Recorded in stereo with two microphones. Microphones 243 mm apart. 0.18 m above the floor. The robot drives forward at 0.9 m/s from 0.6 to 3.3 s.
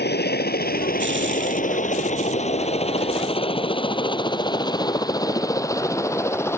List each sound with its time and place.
0.0 s a helicopter: 45° left (ahead or behind); by 6.6 s 10° left (ahead or behind)